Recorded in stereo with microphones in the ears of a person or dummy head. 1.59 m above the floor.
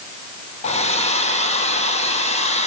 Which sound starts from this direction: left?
A hair dryer, at 0.6 s.